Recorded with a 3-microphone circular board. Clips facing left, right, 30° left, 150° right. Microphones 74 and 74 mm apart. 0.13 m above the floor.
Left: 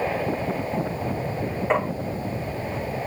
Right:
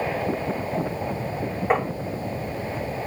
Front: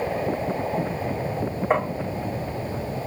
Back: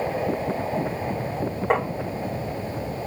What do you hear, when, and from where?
1.7 s tapping: 170° right, 7.5 m